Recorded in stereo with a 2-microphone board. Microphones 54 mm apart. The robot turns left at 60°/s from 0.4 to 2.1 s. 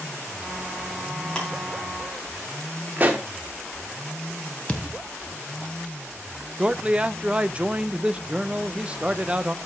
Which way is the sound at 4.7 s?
20° left (ahead or behind).